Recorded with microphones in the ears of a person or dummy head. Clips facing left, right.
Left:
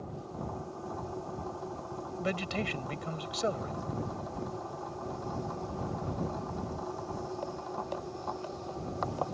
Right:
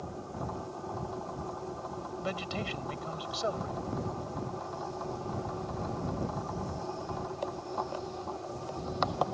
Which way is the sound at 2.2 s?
35° left (ahead or behind).